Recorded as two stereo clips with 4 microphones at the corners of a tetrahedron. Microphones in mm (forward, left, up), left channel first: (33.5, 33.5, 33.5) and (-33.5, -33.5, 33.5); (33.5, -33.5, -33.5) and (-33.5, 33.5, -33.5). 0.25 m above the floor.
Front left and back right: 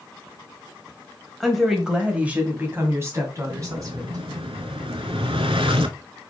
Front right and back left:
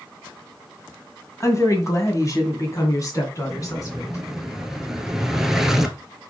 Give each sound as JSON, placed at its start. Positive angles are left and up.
{"t": 1.4, "sound": "a woman speaking", "azimuth_deg": -40, "distance_m": 1.8}
{"t": 3.5, "sound": "an explosion", "azimuth_deg": -140, "distance_m": 1.0}